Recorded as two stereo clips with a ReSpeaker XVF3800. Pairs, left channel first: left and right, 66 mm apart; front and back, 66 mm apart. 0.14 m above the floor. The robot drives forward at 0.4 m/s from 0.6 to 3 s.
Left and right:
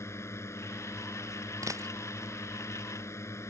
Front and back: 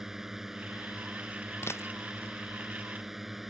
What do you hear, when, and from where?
0.0 s a drone: 100° left; by 3.5 s 95° left
1.6 s a dropped coin: 50° right